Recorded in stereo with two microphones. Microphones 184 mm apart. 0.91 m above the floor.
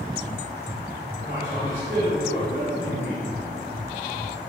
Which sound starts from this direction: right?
A man speaking, at 1.2 s.